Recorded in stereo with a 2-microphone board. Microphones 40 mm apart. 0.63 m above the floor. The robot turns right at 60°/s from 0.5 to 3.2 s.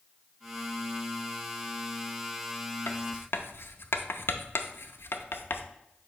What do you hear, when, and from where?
2.9 s writing: 60° left (ahead or behind), 0.5 m; by 5.6 s 70° left (ahead or behind), 0.5 m